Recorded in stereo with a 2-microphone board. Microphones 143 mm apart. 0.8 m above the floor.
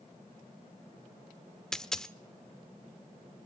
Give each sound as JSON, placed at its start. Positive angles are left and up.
{"t": 1.7, "sound": "a dropped coin", "side_deg": 5, "distance_m": 0.7}